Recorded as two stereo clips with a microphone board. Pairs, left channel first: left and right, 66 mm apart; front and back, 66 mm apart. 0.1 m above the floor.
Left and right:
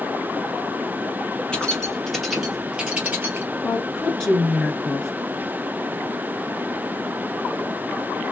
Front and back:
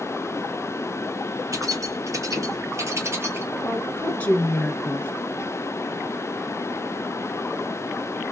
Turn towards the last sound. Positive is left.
turn(degrees=20)